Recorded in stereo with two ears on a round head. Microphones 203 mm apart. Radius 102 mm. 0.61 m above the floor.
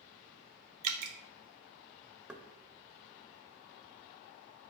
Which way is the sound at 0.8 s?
75° right (ahead or behind).